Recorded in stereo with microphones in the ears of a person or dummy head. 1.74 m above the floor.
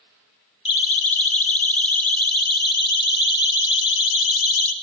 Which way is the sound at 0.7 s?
35° left (ahead or behind).